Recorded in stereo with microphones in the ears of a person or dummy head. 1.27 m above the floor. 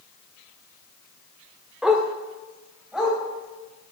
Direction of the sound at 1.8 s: 5° right (ahead or behind).